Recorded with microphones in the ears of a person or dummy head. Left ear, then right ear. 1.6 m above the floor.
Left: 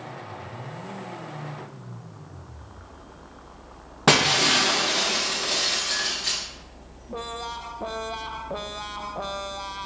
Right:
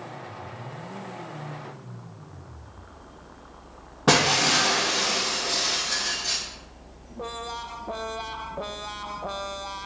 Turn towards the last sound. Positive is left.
turn(degrees=30)  # may be behind; listen again after turning